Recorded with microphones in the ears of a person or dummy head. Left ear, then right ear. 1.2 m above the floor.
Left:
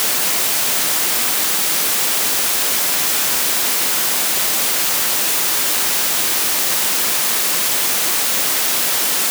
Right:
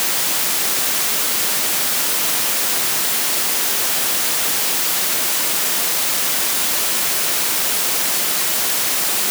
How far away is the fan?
I don't hear a fan.